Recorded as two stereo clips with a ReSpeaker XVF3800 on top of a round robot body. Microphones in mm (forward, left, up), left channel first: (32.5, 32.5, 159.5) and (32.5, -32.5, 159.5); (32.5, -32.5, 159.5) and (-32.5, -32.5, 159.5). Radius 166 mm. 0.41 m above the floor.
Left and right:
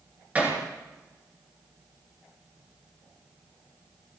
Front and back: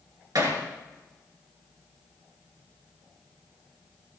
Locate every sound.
0.3 s hammering: 155° right, 4 m